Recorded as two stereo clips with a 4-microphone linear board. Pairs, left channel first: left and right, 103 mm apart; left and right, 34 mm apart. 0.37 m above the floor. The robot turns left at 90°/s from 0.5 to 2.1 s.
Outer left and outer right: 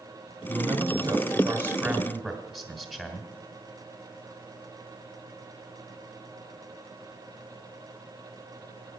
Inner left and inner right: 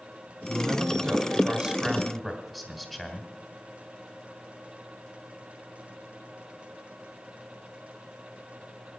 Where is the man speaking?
40° right, 1.7 m; by 3.3 s 175° left, 1.7 m.